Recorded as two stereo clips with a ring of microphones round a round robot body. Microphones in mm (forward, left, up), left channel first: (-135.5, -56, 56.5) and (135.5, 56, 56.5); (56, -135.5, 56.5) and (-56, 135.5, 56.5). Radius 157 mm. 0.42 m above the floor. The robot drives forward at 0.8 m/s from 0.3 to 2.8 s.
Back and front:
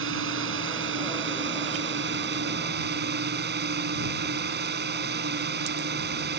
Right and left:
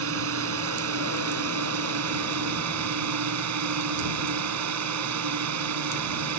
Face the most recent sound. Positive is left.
turn(degrees=80)